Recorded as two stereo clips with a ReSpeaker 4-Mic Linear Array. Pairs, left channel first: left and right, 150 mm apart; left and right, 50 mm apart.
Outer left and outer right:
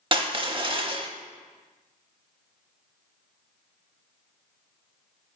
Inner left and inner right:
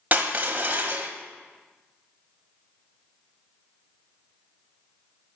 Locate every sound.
0.1 s crushing: 35° right (ahead or behind), 0.5 m